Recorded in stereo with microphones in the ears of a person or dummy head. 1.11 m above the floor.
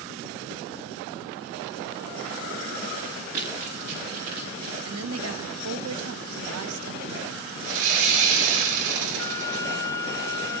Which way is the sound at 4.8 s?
75° right (ahead or behind).